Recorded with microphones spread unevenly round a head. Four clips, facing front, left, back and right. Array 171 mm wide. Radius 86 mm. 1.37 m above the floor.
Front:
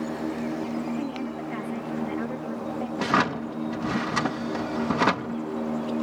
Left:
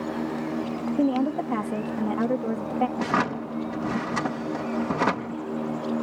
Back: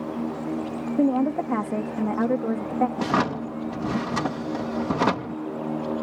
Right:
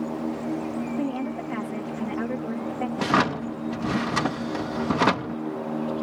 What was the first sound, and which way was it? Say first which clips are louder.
A woman speaking: left 5 dB, back 10 dB; 155° left.